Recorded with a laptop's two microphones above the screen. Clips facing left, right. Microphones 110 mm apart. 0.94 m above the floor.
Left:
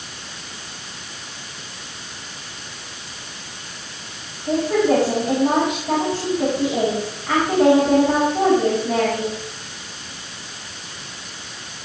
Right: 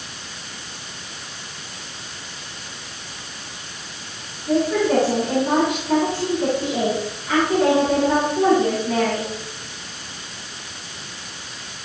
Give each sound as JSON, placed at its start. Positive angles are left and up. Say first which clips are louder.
{"t": 4.5, "sound": "a woman speaking", "louder": "left 1 dB", "side_deg": 80, "distance_m": 8.5}